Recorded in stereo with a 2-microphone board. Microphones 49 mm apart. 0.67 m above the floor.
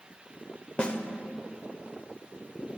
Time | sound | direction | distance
0.8 | a snare drum | 25° left (ahead or behind) | 0.6 m